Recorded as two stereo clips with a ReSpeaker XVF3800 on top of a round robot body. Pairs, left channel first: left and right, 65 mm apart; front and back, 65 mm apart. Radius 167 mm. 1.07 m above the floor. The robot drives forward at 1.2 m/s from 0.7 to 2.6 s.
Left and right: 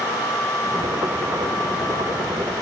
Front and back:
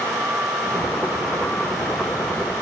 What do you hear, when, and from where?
Only background noise.